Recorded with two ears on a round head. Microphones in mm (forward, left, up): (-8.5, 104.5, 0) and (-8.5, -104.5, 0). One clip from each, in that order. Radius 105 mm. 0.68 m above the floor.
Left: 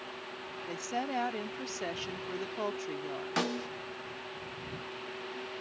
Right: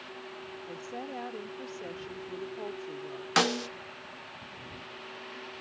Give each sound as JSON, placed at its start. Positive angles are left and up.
{"t": 0.7, "sound": "a woman speaking", "side_deg": 60}
{"t": 3.4, "sound": "a snare drum", "side_deg": -40}